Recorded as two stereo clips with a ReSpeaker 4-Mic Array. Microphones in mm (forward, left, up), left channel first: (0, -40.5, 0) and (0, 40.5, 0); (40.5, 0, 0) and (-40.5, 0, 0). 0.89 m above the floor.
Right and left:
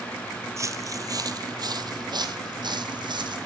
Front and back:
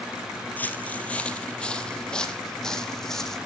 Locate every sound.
0.6 s footsteps: 60° left, 1.2 m; by 3.4 s 85° left, 2.5 m